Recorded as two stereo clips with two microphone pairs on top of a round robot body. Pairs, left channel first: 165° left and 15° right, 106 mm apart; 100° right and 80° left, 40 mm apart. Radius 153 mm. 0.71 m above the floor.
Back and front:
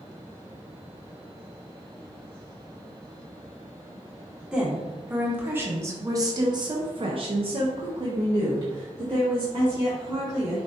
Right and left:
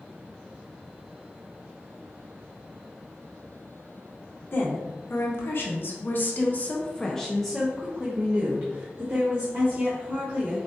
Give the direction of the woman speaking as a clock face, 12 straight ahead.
3 o'clock.